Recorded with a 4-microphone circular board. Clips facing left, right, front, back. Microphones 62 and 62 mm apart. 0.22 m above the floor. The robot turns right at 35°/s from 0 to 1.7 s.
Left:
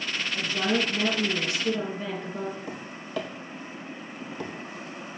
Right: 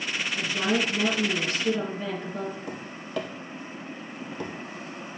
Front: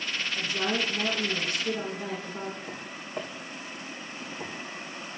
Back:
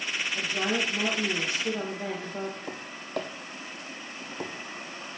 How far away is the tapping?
About 2 m.